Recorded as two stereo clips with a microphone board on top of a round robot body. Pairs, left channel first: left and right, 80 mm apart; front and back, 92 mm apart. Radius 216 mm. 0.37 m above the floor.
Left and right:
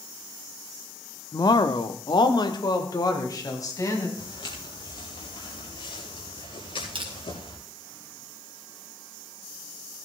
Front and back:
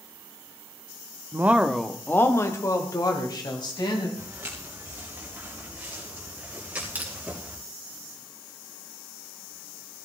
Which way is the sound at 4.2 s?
110° left.